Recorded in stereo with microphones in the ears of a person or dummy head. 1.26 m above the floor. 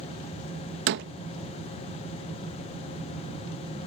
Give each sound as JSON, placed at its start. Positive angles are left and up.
{"t": 0.9, "sound": "a door slam", "side_deg": -60}